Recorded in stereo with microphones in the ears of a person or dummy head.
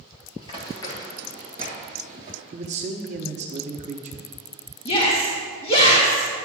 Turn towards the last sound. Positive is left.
turn(degrees=35)  # may be behind; listen again after turning